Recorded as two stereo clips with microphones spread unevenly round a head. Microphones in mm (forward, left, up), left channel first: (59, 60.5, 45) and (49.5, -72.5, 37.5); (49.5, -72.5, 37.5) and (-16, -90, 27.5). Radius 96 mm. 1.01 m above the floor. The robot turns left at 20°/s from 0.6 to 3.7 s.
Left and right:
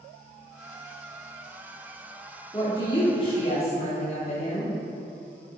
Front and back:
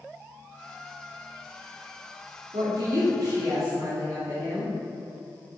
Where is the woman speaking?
160° left, 3 m; by 4.8 s 135° left, 3 m.